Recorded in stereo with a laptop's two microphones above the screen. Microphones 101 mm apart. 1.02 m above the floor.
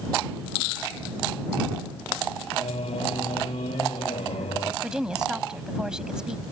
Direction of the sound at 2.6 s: 80° left.